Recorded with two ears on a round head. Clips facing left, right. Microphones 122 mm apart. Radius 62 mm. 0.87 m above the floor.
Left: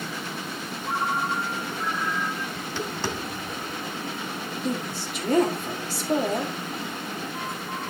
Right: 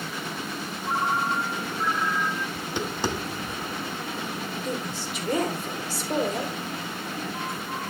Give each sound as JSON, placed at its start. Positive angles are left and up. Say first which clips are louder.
{"t": 0.8, "sound": "a ringtone", "louder": "right 1 dB", "side_deg": -15, "distance_m": 3.5}
{"t": 2.5, "sound": "tapping", "louder": "right 1 dB", "side_deg": -15, "distance_m": 1.0}
{"t": 4.6, "sound": "a woman speaking", "louder": "left 5 dB", "side_deg": 40, "distance_m": 3.0}